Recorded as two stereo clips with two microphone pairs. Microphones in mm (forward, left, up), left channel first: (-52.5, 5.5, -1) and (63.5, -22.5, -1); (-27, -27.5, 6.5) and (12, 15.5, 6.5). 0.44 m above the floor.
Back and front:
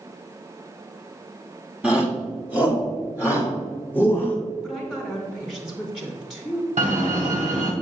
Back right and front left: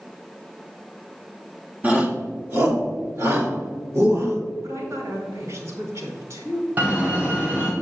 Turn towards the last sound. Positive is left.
turn(degrees=-15)